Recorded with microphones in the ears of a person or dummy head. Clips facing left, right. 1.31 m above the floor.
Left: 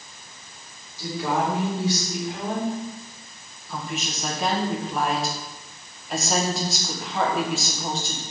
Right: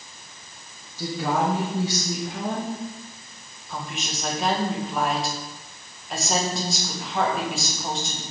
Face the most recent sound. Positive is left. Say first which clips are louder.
# left 2 dB
turn(degrees=0)  # may be behind; listen again after turning